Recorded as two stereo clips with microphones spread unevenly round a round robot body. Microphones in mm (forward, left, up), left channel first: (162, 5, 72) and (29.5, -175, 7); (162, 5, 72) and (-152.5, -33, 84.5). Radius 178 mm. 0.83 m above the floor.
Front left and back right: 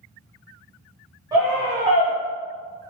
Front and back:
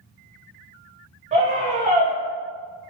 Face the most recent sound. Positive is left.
turn(degrees=-120)